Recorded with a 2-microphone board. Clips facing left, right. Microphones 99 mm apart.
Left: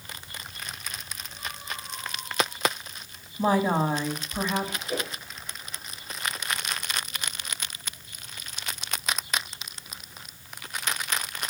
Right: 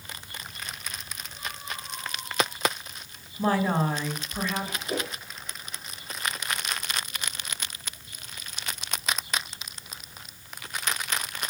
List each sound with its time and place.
3.4 s a woman speaking: 15° left (ahead or behind), 1.1 m
4.9 s a whoosh: 35° right (ahead or behind), 2.0 m